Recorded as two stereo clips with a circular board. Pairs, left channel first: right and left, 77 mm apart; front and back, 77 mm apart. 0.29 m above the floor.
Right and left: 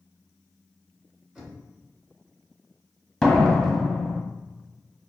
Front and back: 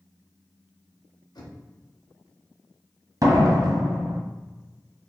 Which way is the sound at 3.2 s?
170° right.